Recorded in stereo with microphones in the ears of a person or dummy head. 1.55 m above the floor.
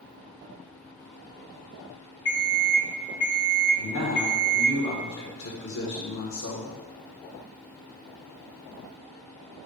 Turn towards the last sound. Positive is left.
turn(degrees=65)  # may be behind; listen again after turning